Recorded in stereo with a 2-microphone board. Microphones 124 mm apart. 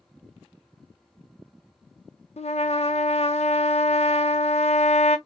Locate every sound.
2.4 s a trumpet: 60° left (ahead or behind), 0.6 m